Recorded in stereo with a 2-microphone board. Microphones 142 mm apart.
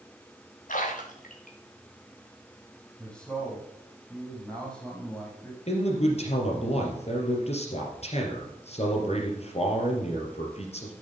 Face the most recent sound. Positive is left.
turn(degrees=50)  # may be behind; listen again after turning